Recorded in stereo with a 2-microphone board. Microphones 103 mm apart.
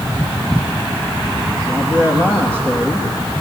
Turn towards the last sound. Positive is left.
turn(degrees=-20)  # may be behind; listen again after turning